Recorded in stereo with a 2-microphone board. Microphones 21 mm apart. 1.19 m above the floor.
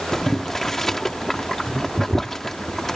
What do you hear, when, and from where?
0.1 s boiling: 20° left (ahead or behind)